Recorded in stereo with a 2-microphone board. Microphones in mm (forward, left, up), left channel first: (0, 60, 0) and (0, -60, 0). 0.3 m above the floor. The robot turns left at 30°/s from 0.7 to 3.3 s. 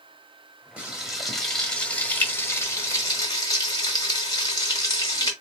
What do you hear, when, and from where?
0.8 s frying: 165° right, 1.5 m; by 5.3 s 120° left, 1.5 m